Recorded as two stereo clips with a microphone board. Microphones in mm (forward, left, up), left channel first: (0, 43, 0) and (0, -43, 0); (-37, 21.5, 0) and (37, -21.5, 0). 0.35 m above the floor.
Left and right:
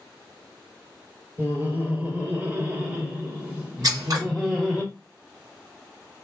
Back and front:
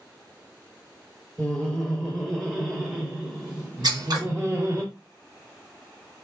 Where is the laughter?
145° right, 1.9 m; by 4.8 s 20° right, 1.6 m.